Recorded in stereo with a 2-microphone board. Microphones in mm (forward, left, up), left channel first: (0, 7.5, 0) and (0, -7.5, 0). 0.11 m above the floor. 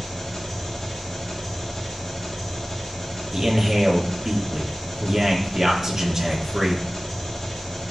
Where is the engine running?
20° left (ahead or behind), 3 m.